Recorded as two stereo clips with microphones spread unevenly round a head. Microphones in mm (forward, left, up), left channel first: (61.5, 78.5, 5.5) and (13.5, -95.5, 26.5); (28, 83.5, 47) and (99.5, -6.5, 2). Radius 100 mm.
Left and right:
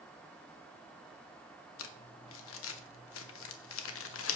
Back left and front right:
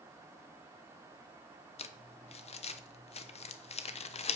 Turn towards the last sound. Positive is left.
turn(degrees=100)